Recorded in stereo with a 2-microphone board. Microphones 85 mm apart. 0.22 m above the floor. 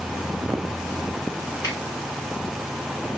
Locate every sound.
1.6 s a finger snap: 40° left (ahead or behind), 1.3 m